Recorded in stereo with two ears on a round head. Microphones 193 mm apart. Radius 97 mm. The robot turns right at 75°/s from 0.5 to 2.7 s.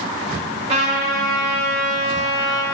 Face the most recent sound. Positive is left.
turn(degrees=5)